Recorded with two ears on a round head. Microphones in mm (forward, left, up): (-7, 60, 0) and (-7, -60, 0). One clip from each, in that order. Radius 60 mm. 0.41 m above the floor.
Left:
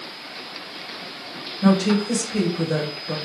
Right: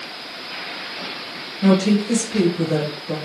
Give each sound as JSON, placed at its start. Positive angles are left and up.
{"t": 1.6, "sound": "a woman speaking", "side_deg": 25, "distance_m": 1.5}